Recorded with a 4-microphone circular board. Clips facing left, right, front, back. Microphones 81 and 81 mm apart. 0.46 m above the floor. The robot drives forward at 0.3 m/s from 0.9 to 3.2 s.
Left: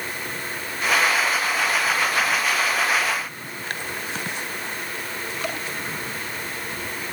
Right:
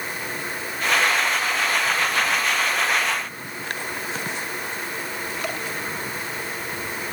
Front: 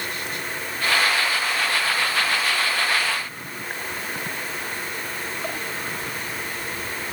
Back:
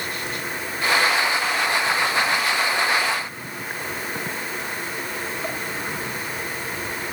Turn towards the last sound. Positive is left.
No sound to turn to.